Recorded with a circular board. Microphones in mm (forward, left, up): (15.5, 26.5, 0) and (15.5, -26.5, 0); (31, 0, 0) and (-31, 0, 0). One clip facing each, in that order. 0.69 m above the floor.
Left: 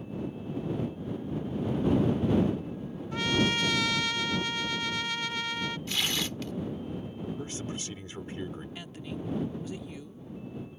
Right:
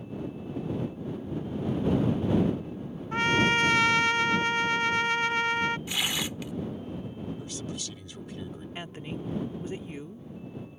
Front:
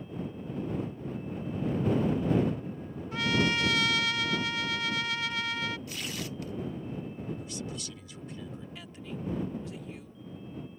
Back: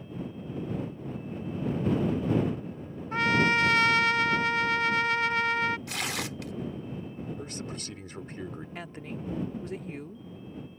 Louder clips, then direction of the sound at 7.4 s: Left 1 dB, back 1 dB; 140° left.